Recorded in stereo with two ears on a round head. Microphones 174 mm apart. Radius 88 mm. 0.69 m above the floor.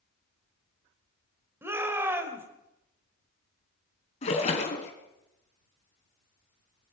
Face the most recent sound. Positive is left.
turn(degrees=35)  # may be behind; listen again after turning